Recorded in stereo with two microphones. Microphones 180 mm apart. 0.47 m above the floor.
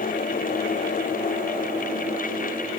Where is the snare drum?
No snare drum in this recording.